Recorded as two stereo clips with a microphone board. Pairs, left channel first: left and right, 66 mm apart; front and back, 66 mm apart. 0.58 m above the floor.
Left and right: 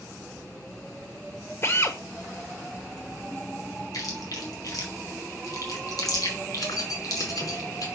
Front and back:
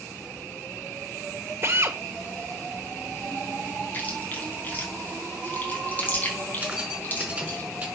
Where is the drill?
135° left, 1.2 m.